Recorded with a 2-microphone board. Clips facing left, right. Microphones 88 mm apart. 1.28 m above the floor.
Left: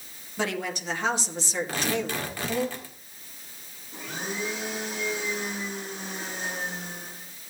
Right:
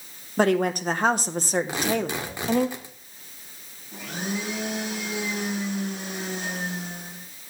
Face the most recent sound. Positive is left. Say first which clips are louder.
# right 3 dB
turn(degrees=-70)  # may be behind; listen again after turning